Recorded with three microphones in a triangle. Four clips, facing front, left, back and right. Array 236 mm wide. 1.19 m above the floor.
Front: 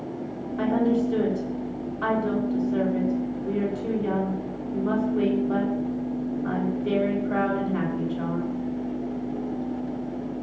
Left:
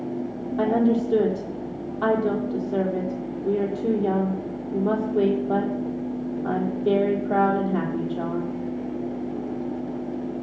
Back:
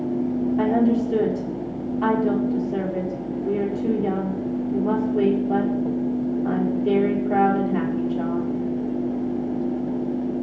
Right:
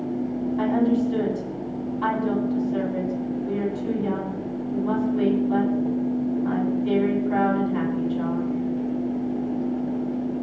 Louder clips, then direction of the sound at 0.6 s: Left 1 dB, back 1 dB; 115° left.